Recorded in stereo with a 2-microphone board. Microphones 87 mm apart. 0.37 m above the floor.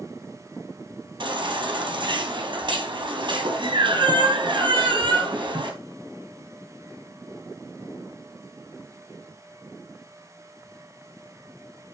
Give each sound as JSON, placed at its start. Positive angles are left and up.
{"t": 1.2, "sound": "a baby crying", "side_deg": -70, "distance_m": 3.0}